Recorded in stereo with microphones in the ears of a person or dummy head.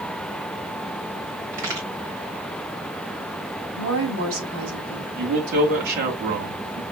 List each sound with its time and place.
1.5 s a crack: 45° right (ahead or behind), 1.8 m
3.8 s a woman speaking: 75° right (ahead or behind), 3 m
5.2 s a man speaking: 55° right (ahead or behind), 1.3 m